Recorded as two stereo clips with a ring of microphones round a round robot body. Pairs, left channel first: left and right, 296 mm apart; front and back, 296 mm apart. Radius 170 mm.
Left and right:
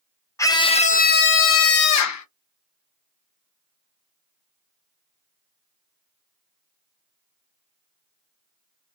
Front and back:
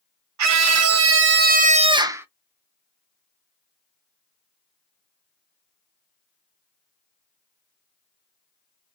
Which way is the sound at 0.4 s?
170° left.